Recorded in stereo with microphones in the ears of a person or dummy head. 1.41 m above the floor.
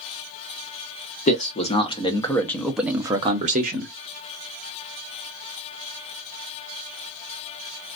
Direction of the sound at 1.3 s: 40° left (ahead or behind).